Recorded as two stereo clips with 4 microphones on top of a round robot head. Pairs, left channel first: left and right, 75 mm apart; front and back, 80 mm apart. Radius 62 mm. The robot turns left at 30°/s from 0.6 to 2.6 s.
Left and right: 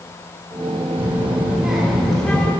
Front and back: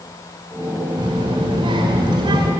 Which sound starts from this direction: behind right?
A child speaking, at 1.0 s.